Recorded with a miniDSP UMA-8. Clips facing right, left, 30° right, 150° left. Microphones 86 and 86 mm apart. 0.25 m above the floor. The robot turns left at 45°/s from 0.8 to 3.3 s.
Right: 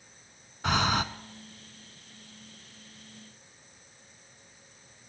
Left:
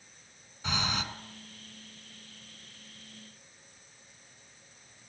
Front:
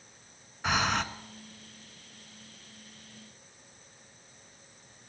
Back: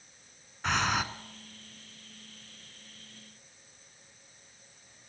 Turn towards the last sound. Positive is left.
turn(degrees=130)